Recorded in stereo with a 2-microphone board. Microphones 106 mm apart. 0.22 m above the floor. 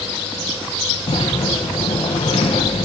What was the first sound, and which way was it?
A sliding door, 85° left.